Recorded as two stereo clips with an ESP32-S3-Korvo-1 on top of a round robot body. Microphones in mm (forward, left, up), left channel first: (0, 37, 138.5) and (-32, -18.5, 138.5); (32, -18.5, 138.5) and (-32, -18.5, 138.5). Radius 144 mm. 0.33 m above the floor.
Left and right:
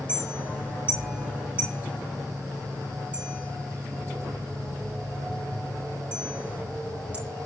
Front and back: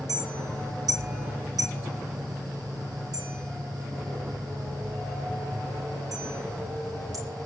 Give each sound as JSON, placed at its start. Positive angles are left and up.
{"t": 0.1, "sound": "a clink", "azimuth_deg": 170, "distance_m": 8.0}